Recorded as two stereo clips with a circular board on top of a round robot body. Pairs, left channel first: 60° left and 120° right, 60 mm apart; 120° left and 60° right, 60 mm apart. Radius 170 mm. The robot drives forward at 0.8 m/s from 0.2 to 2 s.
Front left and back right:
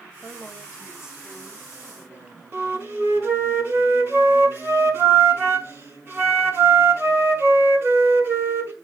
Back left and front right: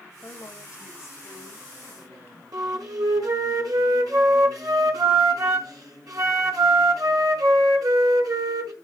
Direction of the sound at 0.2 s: 155° left.